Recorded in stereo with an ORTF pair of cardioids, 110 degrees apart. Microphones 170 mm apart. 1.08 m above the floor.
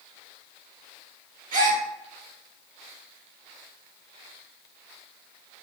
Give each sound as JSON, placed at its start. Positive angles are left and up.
{"t": 1.5, "sound": "a gasp", "azimuth_deg": -55, "distance_m": 1.3}